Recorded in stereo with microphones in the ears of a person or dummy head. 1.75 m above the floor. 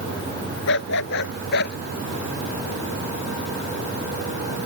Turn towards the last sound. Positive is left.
turn(degrees=65)  # may be behind; listen again after turning